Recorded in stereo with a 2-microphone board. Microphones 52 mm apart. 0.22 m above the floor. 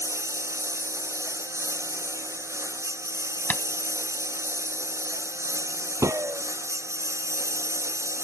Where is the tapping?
40° left (ahead or behind).